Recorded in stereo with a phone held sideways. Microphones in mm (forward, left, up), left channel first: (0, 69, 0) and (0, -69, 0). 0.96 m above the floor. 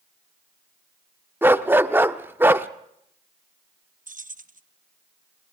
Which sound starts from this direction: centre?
A dog barking, at 1.4 s.